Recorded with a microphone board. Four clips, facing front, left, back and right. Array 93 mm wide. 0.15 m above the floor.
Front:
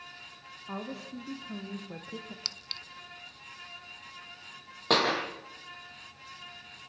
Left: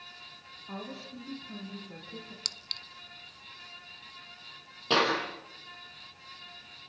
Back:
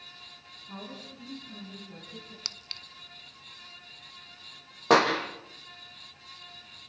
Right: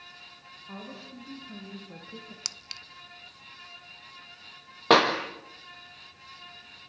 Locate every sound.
0.7 s a woman speaking: 10° left, 7 m; by 2.4 s 10° right, 5 m
2.5 s a clink: 105° right, 0.6 m
4.9 s a clap: 110° right, 5 m